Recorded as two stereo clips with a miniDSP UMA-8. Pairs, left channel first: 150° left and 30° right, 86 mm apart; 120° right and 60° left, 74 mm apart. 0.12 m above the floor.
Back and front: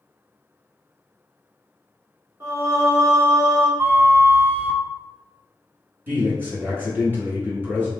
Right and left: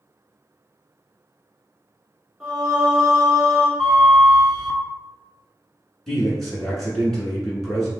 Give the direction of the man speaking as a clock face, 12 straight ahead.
1 o'clock.